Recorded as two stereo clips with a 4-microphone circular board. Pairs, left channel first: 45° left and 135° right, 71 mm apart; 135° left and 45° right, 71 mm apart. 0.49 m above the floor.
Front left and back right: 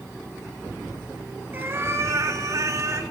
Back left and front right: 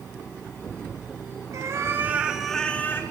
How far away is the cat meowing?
About 0.8 m.